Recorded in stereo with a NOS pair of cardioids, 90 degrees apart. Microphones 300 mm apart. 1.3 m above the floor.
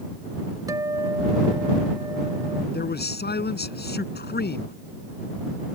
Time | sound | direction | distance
0.7 | a guitar | 10° right | ?
2.7 | a man speaking | 30° left | ?